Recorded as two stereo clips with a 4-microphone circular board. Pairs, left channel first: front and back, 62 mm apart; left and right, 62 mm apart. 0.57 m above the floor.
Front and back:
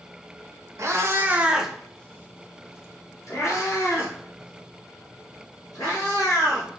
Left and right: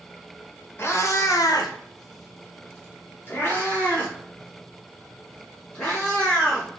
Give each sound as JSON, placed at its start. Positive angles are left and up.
{"t": 0.8, "sound": "a cat meowing", "azimuth_deg": 140, "distance_m": 0.6}